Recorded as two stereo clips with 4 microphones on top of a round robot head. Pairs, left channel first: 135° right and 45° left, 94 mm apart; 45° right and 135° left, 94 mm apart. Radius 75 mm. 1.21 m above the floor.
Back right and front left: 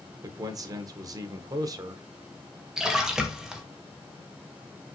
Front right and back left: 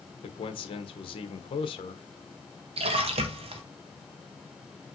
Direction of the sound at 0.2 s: 10° right.